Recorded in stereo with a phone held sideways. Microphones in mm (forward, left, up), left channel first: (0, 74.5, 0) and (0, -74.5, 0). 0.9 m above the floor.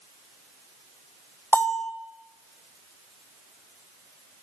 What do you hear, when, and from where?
1.5 s a bell: 10° left (ahead or behind), 3 m